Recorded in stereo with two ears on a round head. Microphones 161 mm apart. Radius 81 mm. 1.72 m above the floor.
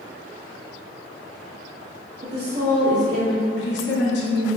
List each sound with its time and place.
2.2 s a woman speaking: 60° right (ahead or behind), 0.6 m; by 3.4 s 45° right (ahead or behind), 1.3 m
3.6 s a woman speaking: 70° left (ahead or behind), 0.6 m